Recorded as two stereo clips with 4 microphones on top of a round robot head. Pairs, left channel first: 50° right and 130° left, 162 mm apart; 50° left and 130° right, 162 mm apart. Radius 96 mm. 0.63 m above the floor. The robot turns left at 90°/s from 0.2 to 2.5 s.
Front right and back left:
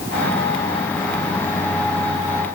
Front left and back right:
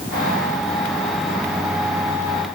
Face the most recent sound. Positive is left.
No sound to turn to.